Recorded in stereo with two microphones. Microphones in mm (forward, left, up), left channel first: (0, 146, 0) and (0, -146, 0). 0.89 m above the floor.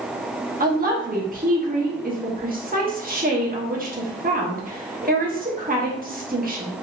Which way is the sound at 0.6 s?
30° right (ahead or behind).